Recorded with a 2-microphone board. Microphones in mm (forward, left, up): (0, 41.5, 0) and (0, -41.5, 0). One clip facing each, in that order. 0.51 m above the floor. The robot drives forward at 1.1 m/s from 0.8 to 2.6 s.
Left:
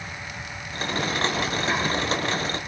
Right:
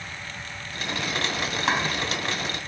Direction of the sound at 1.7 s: 75° right (ahead or behind).